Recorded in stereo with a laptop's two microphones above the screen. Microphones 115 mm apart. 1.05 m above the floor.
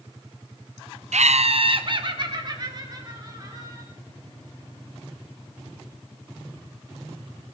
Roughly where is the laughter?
Right.